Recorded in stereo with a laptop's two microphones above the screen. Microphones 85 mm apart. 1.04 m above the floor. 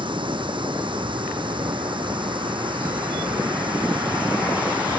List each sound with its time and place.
0.0 s running water: 80° right